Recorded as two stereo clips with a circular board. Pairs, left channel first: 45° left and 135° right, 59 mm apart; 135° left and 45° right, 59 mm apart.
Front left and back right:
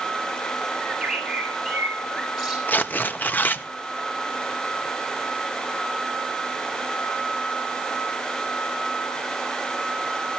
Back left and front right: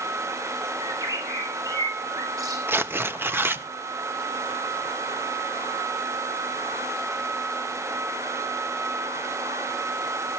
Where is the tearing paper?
10° right, 0.7 m.